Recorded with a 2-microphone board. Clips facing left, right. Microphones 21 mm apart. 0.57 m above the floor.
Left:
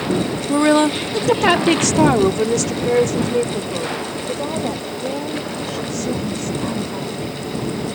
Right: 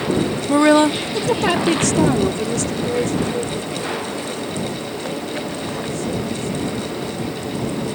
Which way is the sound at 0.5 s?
20° right (ahead or behind).